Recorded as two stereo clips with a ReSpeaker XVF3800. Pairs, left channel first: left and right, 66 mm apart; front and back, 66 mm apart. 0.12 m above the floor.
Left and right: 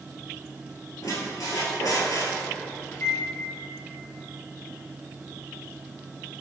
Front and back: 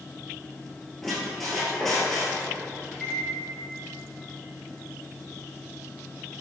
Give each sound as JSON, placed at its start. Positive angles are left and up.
{"t": 1.0, "sound": "a squeak", "azimuth_deg": 85, "distance_m": 0.9}
{"t": 2.9, "sound": "a microwave", "azimuth_deg": 75, "distance_m": 1.1}